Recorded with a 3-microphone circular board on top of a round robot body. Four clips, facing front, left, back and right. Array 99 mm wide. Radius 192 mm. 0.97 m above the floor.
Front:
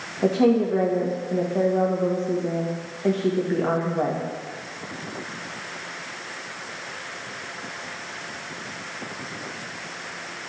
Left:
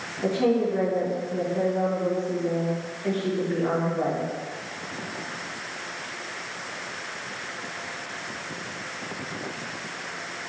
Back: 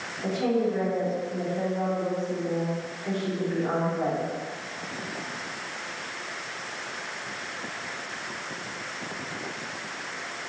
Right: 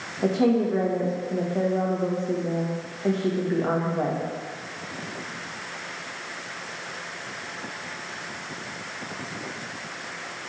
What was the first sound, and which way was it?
A woman speaking, 30° right.